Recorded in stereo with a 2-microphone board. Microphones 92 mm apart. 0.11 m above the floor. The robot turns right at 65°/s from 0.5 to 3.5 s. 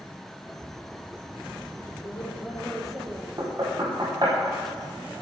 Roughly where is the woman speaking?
Behind left.